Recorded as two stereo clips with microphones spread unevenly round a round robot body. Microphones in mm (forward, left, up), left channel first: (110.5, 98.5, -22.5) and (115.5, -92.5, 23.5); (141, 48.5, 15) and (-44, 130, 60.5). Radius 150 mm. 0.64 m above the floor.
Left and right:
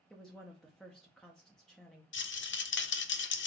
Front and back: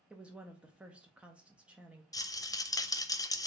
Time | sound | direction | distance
0.1 | a woman speaking | 45° left | 0.6 m
2.1 | a rattle | 55° left | 0.6 m